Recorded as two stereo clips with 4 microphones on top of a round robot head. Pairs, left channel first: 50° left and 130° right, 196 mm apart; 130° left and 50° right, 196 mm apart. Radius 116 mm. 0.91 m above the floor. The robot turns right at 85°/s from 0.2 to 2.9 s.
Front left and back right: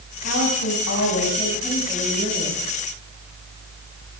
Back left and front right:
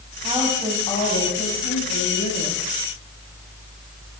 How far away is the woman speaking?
About 6 m.